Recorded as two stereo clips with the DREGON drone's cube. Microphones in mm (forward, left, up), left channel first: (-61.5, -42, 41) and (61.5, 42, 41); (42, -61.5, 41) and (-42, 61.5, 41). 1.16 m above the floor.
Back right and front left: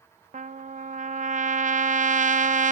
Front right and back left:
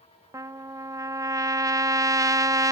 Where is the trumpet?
60° left, 0.6 m.